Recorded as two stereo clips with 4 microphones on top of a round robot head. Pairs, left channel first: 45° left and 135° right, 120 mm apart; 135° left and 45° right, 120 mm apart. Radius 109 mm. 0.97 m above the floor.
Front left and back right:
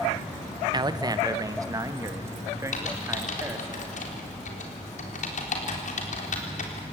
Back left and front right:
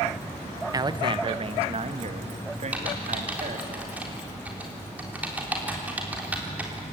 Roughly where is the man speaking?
Right.